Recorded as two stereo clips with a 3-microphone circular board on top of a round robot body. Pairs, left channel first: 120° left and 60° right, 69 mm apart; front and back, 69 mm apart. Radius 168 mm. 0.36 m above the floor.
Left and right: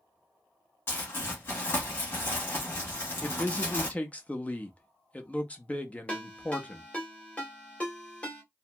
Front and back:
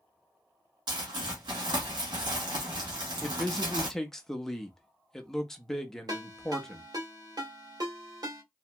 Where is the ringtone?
170° right, 1.5 m.